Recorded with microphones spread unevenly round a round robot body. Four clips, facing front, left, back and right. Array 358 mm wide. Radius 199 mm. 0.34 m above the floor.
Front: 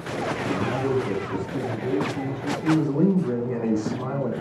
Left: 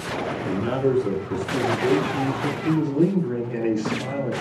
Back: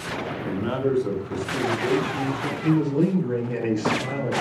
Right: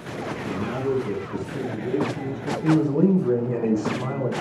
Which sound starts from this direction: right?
A man speaking, at 2.6 s.